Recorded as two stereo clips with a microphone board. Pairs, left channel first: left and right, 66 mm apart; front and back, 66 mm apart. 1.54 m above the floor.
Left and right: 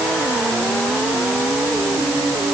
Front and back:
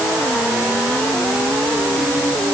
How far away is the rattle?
No rattle in this recording.